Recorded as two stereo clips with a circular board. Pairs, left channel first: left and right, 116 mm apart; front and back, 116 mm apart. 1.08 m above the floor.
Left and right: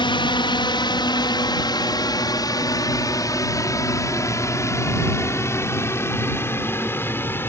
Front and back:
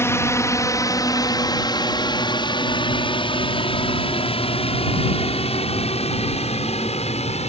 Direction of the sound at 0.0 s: 60° left.